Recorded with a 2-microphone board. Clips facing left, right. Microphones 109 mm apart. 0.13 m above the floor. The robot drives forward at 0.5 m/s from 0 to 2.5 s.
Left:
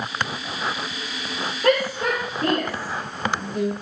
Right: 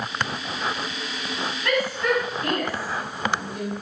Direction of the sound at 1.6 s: 55° left (ahead or behind).